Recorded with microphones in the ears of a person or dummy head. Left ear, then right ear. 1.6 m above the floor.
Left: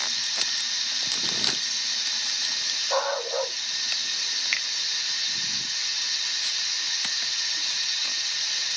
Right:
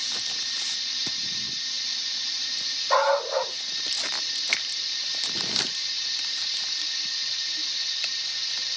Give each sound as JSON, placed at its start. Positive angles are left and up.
{"t": 0.0, "sound": "running water", "side_deg": 40, "distance_m": 1.0}
{"t": 2.9, "sound": "a dog barking", "side_deg": -35, "distance_m": 1.6}
{"t": 4.5, "sound": "a finger snap", "side_deg": 0, "distance_m": 0.6}